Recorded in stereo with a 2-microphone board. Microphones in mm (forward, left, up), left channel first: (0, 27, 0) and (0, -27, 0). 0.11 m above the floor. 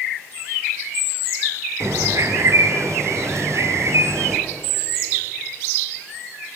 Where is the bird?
55° right (ahead or behind), 1.9 m.